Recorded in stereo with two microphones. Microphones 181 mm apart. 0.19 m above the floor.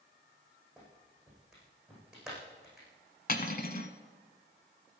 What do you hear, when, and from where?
0.8 s a clap: centre (ahead or behind), 7.5 m
3.3 s cutlery clinking: 50° left (ahead or behind), 1.0 m